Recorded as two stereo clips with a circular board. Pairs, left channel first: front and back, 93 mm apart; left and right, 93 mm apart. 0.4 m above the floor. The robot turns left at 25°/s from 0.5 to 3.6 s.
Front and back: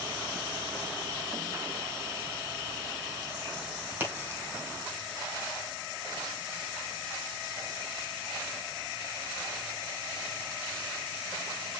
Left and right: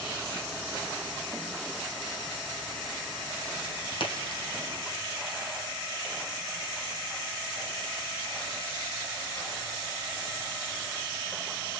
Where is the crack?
115° left, 4.5 m.